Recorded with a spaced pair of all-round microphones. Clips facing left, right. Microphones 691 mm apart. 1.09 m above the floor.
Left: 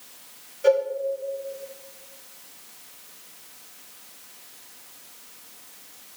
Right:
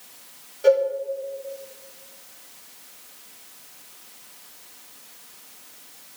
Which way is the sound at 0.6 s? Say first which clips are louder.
Right 2 dB; 65° right (ahead or behind).